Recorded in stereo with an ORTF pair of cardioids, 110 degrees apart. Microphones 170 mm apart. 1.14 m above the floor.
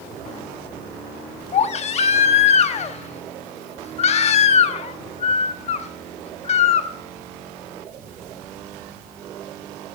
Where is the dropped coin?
No dropped coin in this recording.